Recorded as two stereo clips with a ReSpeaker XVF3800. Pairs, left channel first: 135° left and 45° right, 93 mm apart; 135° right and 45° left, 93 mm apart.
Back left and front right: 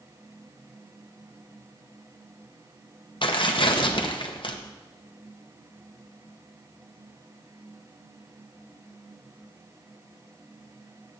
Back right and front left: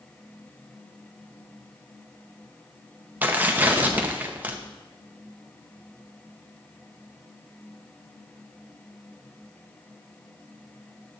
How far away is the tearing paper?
About 0.9 m.